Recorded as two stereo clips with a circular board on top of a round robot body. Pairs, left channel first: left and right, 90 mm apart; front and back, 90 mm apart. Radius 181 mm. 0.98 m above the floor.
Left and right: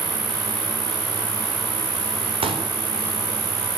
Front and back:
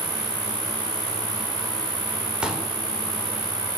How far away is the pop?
About 4.5 m.